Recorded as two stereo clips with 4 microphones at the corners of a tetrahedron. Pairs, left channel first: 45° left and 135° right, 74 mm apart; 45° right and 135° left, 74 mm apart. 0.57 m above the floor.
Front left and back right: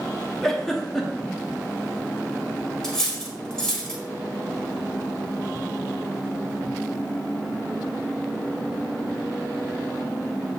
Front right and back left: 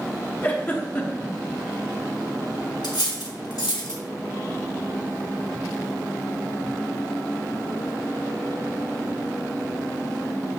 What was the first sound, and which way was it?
A giggle, 35° right.